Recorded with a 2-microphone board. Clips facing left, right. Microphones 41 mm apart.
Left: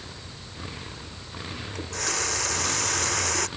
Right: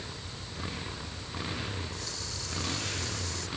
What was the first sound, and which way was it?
A running tap, 70° left (ahead or behind).